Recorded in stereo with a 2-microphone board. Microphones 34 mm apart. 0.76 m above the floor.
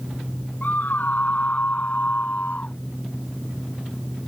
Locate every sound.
0.6 s a scream: 50° left (ahead or behind); by 2.8 s 40° left (ahead or behind)